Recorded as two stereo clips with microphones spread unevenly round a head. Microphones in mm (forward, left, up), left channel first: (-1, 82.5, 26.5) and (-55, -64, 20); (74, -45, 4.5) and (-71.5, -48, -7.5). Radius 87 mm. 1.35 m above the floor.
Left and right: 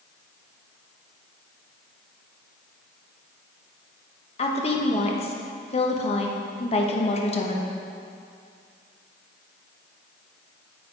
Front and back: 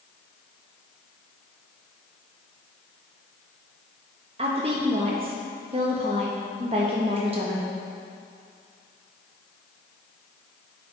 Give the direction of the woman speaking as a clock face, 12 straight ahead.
8 o'clock.